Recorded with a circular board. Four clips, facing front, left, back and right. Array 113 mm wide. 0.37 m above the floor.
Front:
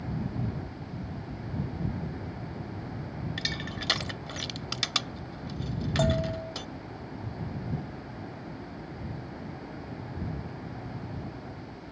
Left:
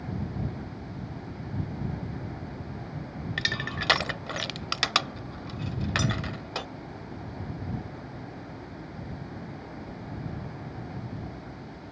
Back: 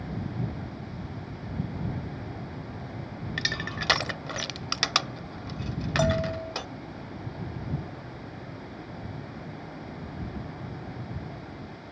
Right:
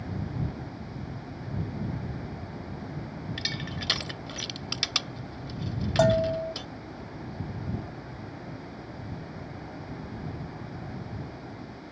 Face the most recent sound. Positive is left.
turn(degrees=-95)